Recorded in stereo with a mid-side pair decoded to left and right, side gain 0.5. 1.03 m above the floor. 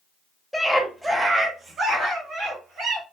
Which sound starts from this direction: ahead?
A scream, at 0.5 s.